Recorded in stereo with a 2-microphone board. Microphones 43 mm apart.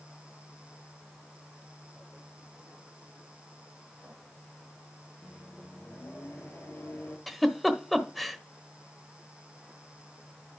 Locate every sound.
5.2 s a microwave: 60° left (ahead or behind), 5 m
7.3 s a giggle: centre (ahead or behind), 1.2 m